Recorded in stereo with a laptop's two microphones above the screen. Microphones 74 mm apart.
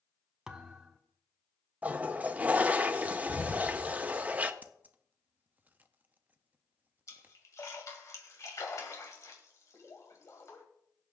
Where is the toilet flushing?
20° right (ahead or behind), 0.7 m.